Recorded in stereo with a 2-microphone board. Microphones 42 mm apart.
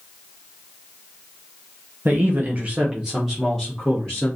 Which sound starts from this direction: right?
A man speaking, at 2.0 s.